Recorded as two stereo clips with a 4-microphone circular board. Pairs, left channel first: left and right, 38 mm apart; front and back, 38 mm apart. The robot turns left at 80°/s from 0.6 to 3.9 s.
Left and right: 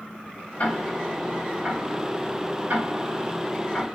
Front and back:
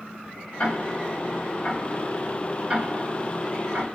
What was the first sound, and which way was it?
Ticking, 45° left.